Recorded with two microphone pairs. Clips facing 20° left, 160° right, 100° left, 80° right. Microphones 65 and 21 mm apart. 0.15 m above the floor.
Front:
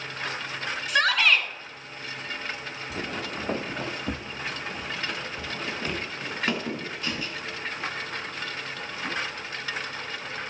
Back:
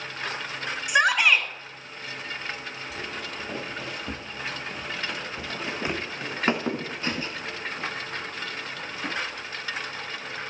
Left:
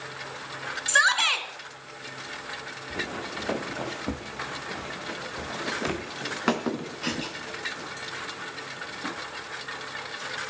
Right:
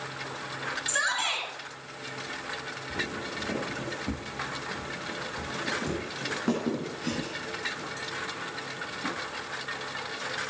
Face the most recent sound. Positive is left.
turn(degrees=155)